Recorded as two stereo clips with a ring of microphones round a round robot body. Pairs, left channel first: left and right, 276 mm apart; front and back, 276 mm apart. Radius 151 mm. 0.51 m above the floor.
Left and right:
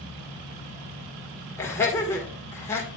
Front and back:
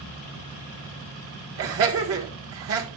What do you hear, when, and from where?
1.6 s laughter: 170° left, 1.6 m